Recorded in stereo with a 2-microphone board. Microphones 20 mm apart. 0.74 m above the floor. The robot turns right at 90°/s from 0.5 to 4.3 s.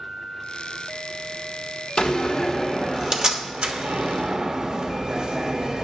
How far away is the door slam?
About 1.0 m.